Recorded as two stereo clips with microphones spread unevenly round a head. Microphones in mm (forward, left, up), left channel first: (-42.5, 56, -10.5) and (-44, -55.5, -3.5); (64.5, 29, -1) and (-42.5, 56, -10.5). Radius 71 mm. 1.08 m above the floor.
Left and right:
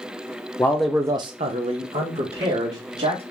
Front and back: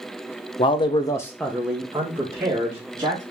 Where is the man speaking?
25° left, 0.7 m; by 3.2 s 125° right, 2.5 m.